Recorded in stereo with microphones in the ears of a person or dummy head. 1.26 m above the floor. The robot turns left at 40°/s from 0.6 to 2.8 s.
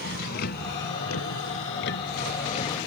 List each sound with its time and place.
0.0 s a vehicle: 55° left (ahead or behind); by 2.9 s 30° left (ahead or behind)